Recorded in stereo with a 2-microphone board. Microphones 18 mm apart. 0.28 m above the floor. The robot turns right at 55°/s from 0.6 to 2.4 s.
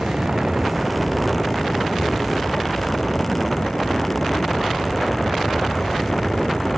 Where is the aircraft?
50° right (ahead or behind); by 6.8 s 40° left (ahead or behind).